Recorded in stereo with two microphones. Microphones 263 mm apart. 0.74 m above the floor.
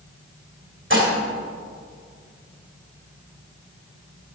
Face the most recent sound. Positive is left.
turn(degrees=-50)  # may be behind; listen again after turning